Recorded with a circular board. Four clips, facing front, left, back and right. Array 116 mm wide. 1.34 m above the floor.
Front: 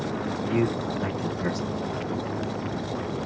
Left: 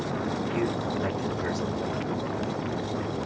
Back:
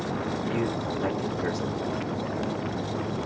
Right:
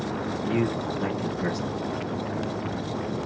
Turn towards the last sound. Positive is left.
turn(degrees=-70)